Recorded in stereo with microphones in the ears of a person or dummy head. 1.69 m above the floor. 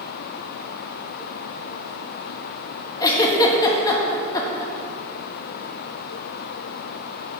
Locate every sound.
3.0 s a giggle: 25° left (ahead or behind), 1.4 m